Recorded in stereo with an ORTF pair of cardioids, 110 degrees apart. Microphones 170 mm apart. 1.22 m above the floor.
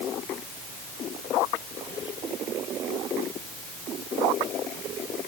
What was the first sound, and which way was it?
Only background noise.